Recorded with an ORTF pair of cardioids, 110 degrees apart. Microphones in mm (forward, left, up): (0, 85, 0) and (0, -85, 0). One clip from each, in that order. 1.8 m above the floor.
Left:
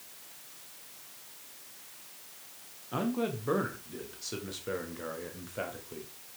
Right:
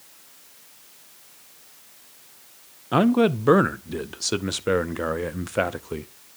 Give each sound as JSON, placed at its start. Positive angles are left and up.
{"t": 2.9, "sound": "a man speaking", "azimuth_deg": -65, "distance_m": 0.7}